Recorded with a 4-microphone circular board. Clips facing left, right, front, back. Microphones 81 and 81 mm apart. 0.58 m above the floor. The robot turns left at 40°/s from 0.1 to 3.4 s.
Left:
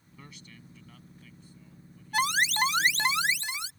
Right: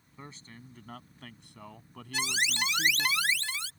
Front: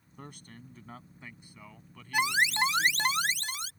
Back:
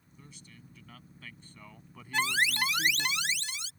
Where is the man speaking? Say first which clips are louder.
Right 3 dB, front 7 dB; 25° right; by 3.1 s 145° right.